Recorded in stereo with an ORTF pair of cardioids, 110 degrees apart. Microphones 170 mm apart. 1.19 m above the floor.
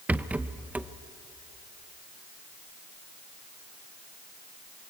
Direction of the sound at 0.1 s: 10° right.